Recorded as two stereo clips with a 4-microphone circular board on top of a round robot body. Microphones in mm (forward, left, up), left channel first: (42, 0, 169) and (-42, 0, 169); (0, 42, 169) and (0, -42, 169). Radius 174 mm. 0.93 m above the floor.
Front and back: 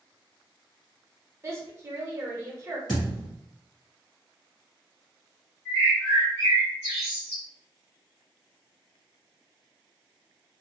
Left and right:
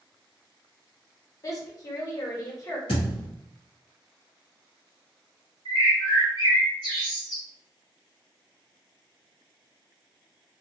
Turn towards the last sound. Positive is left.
turn(degrees=55)